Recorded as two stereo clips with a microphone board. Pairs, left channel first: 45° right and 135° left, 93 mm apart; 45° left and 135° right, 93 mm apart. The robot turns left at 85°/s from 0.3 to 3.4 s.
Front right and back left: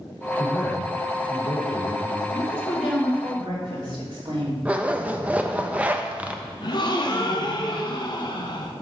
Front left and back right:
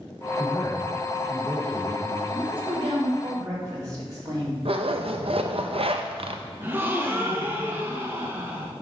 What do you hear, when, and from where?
0.4 s a man speaking: 70° left, 4 m; by 2.2 s 85° right, 4 m
2.3 s a woman speaking: 90° right, 3 m; by 4.5 s 175° left, 3 m
4.7 s a zipper: 150° right, 0.6 m
6.6 s a gasp: 70° right, 1.0 m